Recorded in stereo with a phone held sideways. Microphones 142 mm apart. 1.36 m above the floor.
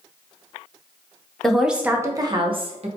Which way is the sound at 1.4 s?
5° left (ahead or behind).